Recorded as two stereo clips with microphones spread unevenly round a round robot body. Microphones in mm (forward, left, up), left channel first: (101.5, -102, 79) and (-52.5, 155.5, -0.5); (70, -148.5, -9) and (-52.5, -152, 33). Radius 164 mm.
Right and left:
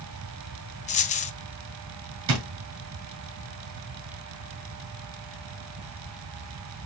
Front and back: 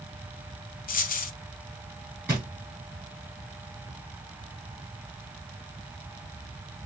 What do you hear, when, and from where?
0.9 s a dropped coin: 5° left, 0.6 m
2.3 s a drawer: 95° left, 1.8 m